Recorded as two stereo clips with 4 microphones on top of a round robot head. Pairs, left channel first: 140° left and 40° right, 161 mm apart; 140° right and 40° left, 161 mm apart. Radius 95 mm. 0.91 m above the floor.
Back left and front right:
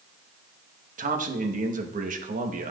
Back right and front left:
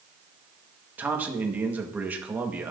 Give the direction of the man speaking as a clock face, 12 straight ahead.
1 o'clock.